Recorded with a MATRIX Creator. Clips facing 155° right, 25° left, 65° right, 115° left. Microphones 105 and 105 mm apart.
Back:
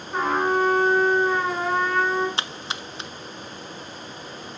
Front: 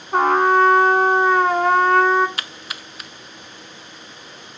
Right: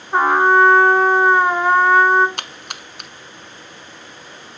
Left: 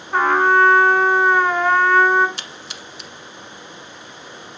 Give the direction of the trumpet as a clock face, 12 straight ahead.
12 o'clock.